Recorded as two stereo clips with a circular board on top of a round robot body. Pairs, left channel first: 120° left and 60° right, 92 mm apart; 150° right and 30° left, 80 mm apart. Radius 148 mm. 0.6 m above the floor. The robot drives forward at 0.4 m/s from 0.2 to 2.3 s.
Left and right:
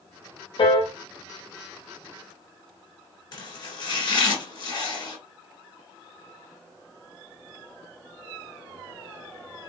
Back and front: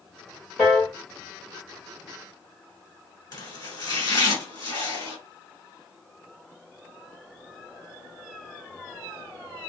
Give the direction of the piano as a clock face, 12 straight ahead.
8 o'clock.